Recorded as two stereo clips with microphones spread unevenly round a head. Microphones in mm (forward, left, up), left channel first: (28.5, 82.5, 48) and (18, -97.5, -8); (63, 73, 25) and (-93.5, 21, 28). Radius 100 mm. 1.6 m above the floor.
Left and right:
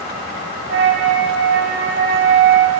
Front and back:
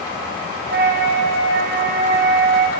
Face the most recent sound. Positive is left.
turn(degrees=-135)